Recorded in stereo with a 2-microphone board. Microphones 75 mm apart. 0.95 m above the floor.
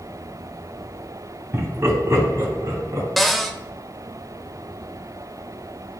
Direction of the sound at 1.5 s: 35° right (ahead or behind).